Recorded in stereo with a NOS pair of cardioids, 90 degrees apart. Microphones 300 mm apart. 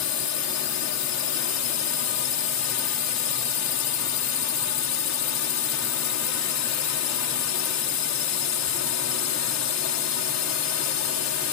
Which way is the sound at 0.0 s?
65° left.